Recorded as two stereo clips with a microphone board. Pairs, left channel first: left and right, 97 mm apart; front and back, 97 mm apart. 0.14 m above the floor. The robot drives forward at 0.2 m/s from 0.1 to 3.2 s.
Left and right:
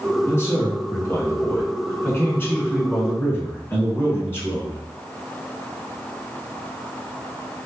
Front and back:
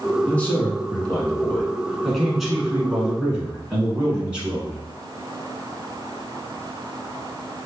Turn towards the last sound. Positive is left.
turn(degrees=110)